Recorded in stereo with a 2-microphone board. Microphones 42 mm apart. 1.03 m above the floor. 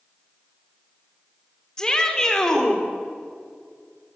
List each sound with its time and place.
1.8 s a shout: 15° left (ahead or behind), 3 m